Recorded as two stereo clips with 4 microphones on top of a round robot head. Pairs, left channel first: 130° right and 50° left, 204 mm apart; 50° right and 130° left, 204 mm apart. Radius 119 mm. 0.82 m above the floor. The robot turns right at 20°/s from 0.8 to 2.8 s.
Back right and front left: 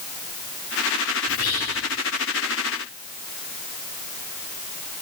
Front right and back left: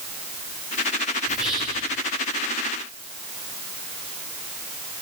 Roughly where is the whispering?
Behind right.